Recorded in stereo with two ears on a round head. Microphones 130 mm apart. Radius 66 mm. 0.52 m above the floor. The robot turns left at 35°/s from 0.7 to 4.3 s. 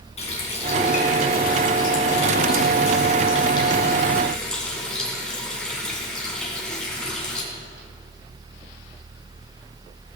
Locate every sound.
0.2 s a running tap: 130° left, 3 m; by 7.4 s 5° left, 3 m